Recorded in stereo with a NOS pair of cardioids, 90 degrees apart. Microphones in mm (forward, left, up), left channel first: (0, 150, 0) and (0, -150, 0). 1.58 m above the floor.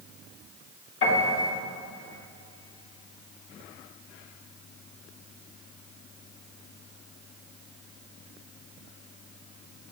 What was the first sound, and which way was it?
A piano, 45° left.